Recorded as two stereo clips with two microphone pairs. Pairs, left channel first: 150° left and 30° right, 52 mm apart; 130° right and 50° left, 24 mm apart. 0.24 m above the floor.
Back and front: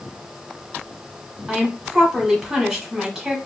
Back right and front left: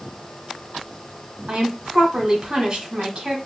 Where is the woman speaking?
45° left, 1.2 m.